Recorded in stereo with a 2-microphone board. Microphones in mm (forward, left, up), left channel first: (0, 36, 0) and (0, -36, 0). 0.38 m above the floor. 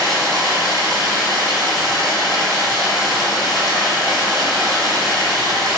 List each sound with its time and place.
0.0 s running water: 85° left, 1.4 m